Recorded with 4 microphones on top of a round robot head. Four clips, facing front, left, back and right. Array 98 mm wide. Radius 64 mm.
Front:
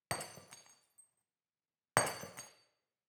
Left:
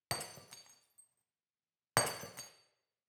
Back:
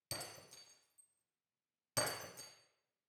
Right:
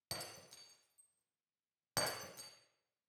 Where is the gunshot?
I don't hear a gunshot.